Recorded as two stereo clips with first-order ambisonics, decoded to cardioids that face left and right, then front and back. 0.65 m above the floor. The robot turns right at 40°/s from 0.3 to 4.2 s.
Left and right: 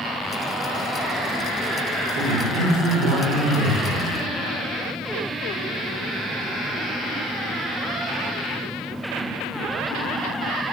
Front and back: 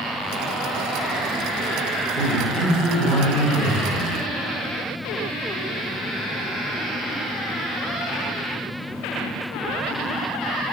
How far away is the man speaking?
About 2.5 m.